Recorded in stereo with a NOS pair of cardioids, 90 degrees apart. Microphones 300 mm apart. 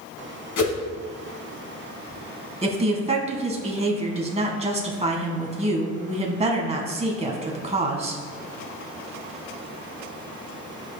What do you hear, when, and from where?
0.6 s a whoosh: 60° left, 1.9 m
2.6 s a woman speaking: 20° right, 1.7 m